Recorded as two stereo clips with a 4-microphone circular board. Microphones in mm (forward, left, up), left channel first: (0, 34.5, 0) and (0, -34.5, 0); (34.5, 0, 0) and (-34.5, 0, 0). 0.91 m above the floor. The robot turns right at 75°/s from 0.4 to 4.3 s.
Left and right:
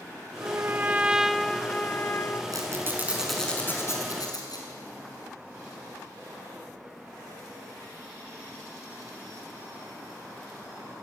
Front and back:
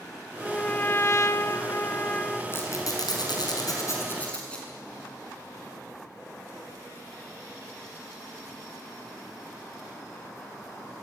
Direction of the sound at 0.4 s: 70° right.